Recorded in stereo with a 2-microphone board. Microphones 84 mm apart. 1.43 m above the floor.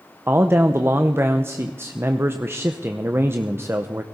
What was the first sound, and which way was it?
A man speaking, 30° right (ahead or behind).